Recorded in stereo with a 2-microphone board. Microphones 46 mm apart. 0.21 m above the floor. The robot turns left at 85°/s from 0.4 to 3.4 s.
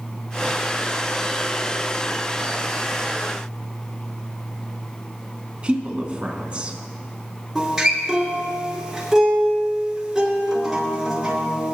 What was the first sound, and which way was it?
A woman speaking, 25° right (ahead or behind).